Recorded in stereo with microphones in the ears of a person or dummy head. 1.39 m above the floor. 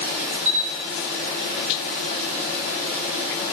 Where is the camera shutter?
5° left (ahead or behind), 3.5 m.